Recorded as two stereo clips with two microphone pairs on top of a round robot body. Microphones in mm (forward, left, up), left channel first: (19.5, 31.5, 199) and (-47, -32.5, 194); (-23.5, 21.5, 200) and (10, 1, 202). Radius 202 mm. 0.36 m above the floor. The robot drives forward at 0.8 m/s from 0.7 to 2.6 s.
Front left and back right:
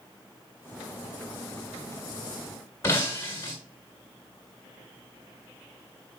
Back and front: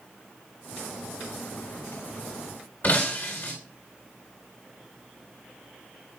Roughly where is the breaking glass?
Left.